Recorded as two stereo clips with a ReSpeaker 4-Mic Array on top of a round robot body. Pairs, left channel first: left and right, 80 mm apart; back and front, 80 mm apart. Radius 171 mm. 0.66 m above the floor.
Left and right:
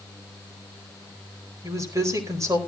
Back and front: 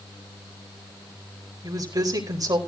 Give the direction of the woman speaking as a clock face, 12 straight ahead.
1 o'clock.